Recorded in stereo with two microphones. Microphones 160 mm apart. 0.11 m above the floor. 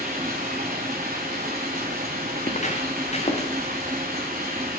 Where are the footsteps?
55° left (ahead or behind), 0.7 m; by 3.5 s 40° left (ahead or behind), 1.3 m.